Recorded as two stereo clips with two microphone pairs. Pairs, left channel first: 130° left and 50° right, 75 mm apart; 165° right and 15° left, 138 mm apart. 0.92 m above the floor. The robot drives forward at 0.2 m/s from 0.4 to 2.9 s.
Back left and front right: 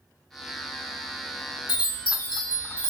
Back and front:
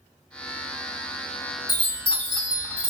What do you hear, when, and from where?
1.7 s a chime: 135° left, 1.7 m; by 2.9 s 140° left, 1.9 m